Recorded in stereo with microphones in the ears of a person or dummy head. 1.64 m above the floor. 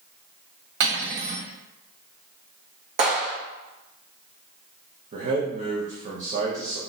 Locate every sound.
0.8 s cutlery clinking: 55° right (ahead or behind), 1.5 m
3.0 s a clap: 40° right (ahead or behind), 1.7 m
5.1 s a man speaking: 45° right (ahead or behind), 0.9 m